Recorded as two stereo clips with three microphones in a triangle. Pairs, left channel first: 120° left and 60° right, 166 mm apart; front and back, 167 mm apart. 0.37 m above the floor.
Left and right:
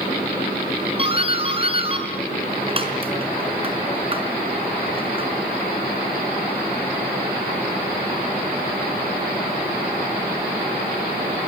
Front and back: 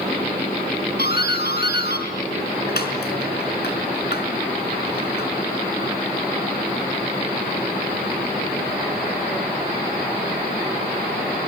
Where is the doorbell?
5° right, 4.5 m.